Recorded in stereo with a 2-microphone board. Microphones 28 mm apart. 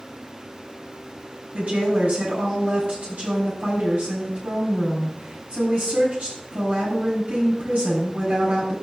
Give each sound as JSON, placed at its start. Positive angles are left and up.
{"t": 1.5, "sound": "a woman speaking", "side_deg": -60, "distance_m": 7.0}